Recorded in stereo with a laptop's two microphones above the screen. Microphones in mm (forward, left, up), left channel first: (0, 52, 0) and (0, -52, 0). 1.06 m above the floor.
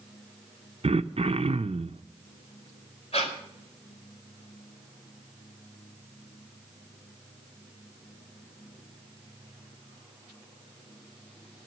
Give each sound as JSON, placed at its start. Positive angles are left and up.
{"t": 0.8, "sound": "throat clearing", "side_deg": -75, "distance_m": 0.5}
{"t": 3.1, "sound": "breathing", "side_deg": 85, "distance_m": 4.0}